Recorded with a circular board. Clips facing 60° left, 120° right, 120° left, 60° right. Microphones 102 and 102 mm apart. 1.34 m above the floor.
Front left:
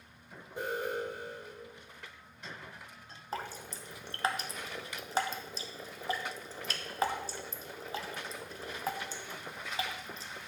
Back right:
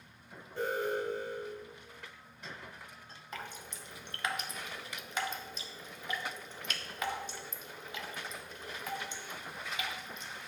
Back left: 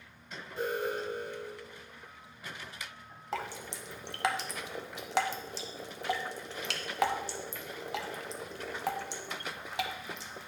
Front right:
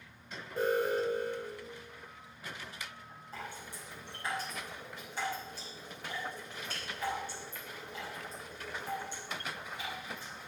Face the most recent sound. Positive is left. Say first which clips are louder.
# front left 5 dB, back left 7 dB
turn(degrees=115)